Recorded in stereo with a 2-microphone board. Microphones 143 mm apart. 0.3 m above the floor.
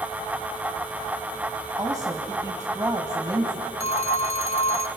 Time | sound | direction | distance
1.8 | a woman speaking | 25° right (ahead or behind) | 1.7 m
3.8 | a phone ringing | 45° left (ahead or behind) | 1.1 m